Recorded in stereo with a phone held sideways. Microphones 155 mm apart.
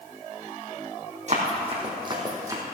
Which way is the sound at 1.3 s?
45° right (ahead or behind).